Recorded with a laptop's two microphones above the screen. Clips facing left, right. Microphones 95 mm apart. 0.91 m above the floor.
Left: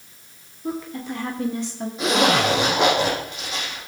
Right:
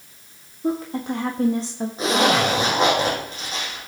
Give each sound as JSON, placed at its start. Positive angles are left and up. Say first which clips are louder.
{"t": 0.6, "sound": "a woman speaking", "louder": "right 5 dB", "side_deg": -65, "distance_m": 1.5}
{"t": 2.0, "sound": "a zipper", "louder": "even", "side_deg": -35, "distance_m": 7.0}